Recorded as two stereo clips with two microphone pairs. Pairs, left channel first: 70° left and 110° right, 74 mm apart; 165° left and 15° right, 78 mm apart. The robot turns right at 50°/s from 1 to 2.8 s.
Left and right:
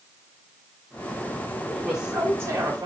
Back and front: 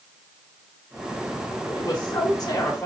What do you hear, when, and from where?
1.7 s a woman speaking: 160° left, 3 m; by 2.9 s 145° right, 3 m